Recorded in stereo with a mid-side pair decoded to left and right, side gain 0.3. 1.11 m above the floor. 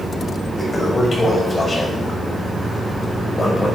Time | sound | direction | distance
0.6 | a toilet flushing | 35° left | 6.5 m